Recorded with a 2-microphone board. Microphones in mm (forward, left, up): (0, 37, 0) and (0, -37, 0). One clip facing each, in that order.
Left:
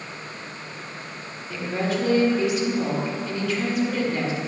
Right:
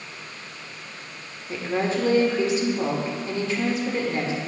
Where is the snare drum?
I don't hear a snare drum.